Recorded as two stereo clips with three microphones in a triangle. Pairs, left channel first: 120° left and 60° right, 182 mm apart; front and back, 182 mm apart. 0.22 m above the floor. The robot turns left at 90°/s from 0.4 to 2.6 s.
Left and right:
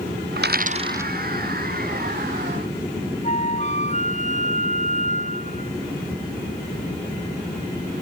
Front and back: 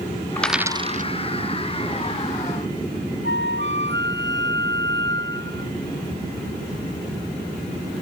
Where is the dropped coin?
80° right; by 1.1 s 145° right.